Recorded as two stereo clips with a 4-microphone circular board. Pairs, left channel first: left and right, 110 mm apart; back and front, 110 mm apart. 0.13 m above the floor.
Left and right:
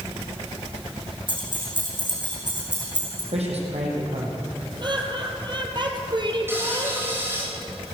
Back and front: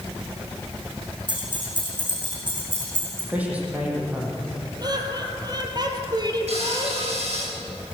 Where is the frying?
20° right, 8 m.